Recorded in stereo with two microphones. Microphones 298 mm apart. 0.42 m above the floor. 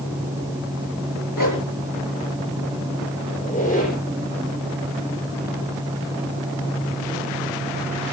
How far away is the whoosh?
About 5.5 m.